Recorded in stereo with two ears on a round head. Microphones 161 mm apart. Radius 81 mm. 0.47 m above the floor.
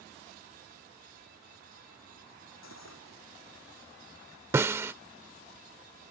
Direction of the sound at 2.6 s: 85° left.